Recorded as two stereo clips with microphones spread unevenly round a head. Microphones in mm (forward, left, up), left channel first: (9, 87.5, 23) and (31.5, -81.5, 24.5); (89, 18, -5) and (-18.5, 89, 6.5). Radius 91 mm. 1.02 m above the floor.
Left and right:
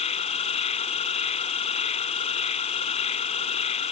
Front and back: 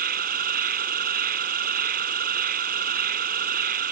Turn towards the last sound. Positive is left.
turn(degrees=155)